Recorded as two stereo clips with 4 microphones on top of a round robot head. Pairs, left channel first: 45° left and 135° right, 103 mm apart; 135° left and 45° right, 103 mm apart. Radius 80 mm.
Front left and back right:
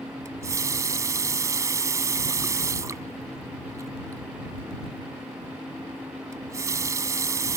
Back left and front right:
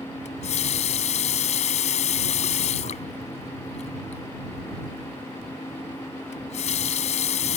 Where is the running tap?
160° left.